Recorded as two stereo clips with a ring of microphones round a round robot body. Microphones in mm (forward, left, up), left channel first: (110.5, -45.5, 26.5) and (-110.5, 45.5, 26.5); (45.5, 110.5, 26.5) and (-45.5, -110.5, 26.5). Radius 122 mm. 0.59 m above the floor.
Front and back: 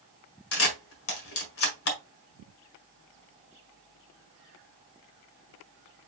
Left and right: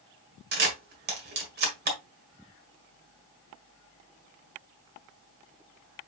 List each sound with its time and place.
0.5 s a camera shutter: 60° right, 1.6 m